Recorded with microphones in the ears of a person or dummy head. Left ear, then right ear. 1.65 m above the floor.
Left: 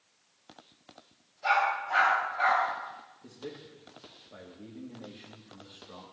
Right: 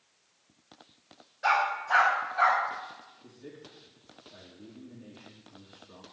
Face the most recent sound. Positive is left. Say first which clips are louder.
# left 8 dB
turn(degrees=50)  # may be behind; listen again after turning